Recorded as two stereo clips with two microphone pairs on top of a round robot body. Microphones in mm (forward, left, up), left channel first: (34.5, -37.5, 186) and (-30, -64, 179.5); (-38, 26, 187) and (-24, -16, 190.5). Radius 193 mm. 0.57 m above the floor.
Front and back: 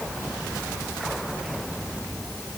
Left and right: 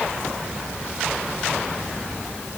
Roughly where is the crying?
No crying in this recording.